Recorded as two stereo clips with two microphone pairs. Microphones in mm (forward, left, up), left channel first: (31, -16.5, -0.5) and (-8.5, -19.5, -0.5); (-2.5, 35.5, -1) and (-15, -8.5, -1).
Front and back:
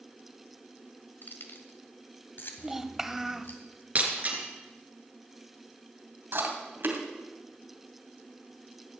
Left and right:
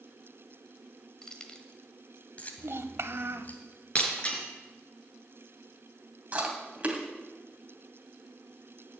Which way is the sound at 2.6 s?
95° right.